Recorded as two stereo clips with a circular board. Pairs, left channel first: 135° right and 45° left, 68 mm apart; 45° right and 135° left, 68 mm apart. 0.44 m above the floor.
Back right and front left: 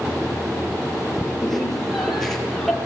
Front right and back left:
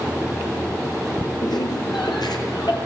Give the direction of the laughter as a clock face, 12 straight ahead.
2 o'clock.